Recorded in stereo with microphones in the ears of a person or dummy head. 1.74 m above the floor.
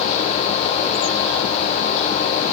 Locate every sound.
Only background noise.